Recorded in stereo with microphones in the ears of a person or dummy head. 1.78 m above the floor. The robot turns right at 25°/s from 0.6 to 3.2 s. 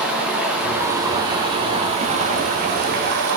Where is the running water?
175° right, 2.5 m; by 3.4 s 110° right, 2.5 m.